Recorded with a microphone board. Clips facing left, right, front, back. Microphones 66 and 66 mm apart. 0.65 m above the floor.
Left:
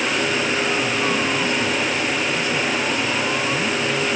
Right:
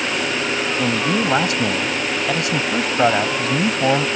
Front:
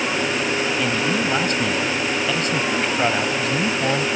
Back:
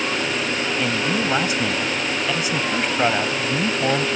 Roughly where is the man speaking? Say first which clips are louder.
Right 2 dB, front 1 dB; right.